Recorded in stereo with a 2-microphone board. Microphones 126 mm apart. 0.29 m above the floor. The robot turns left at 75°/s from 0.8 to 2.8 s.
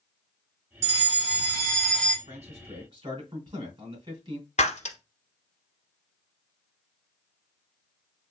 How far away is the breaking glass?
About 1.0 m.